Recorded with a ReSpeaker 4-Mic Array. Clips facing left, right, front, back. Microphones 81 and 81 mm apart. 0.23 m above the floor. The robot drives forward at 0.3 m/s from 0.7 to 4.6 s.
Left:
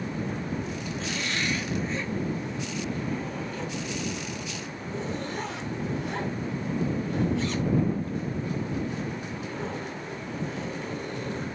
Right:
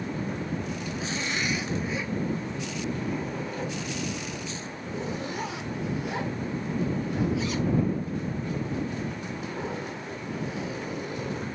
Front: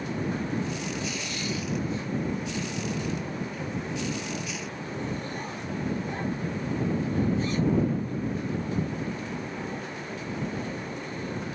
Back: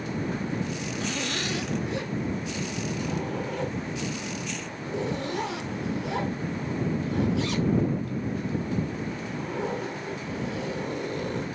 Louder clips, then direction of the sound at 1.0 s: Even, back 3 dB; 170° right.